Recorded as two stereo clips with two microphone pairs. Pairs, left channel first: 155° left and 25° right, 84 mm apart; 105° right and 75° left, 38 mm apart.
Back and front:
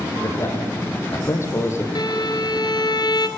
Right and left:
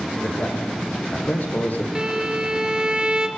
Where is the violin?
140° left, 2.5 m.